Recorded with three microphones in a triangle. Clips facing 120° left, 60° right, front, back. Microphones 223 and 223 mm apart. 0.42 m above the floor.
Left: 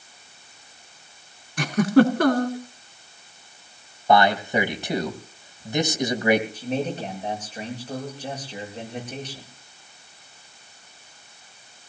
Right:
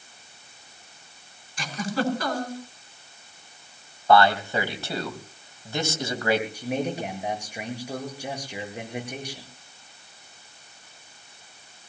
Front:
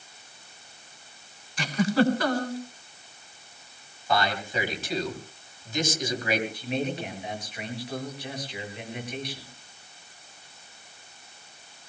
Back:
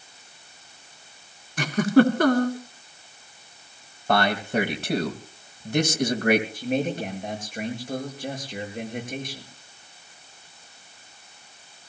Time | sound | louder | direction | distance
1.6 | a giggle | left 12 dB, back 6 dB | 150° left | 1.9 m
4.1 | a man speaking | left 1 dB, back 5 dB | 170° right | 2.5 m
6.5 | a man speaking | left 1 dB, back 4 dB | 140° right | 7.5 m